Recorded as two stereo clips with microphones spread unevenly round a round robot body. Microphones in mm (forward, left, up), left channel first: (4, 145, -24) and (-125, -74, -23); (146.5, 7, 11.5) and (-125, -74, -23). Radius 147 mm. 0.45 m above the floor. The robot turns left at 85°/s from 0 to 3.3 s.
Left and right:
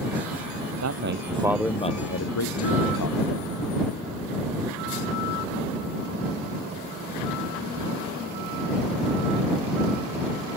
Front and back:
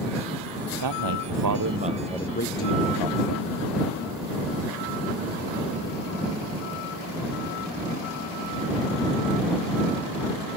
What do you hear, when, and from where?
0.8 s a man speaking: 145° right; by 3.5 s 5° left